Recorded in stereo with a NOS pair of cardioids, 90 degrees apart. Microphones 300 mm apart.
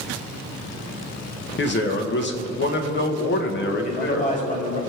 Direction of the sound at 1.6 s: 40° left.